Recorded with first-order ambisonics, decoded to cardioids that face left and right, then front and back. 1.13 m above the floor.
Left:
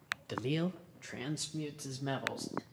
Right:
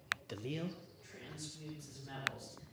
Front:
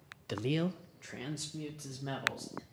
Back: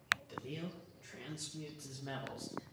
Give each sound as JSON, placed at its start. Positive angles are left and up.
{"t": 0.3, "sound": "a man speaking", "azimuth_deg": 15, "distance_m": 0.7}